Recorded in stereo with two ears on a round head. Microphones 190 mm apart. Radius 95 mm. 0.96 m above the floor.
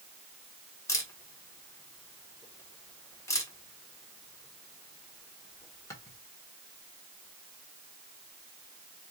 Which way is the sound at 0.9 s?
15° left (ahead or behind).